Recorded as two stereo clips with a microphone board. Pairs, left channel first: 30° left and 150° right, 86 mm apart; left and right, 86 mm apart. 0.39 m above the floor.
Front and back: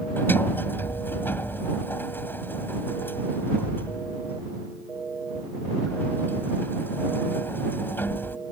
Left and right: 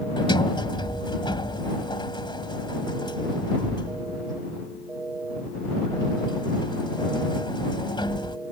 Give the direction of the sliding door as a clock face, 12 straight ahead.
9 o'clock.